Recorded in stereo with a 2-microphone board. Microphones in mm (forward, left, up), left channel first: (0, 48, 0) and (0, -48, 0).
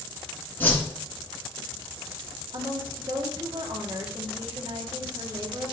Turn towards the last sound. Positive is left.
turn(degrees=-60)  # may be behind; listen again after turning